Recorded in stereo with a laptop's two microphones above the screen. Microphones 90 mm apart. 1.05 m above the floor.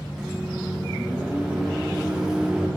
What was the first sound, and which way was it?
A microwave, 10° right (ahead or behind).